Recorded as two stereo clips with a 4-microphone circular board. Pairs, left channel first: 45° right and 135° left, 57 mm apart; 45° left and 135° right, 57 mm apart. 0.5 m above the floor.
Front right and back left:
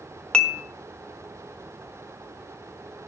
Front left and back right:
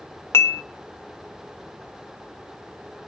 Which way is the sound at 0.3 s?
25° left.